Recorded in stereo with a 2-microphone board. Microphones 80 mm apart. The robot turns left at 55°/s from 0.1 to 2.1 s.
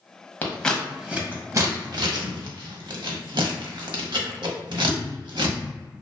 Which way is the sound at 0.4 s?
25° left (ahead or behind).